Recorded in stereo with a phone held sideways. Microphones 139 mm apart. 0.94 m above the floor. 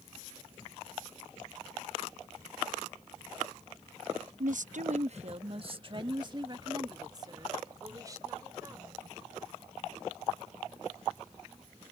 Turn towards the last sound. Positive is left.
turn(degrees=-25)  # may be behind; listen again after turning